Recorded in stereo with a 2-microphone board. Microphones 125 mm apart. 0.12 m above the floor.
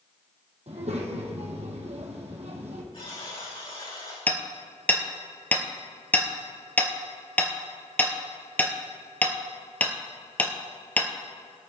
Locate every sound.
0.7 s a child speaking: 60° right (ahead or behind), 2.5 m
2.9 s a buzzer: 50° left (ahead or behind), 4 m
4.3 s hammering: 15° left (ahead or behind), 1.1 m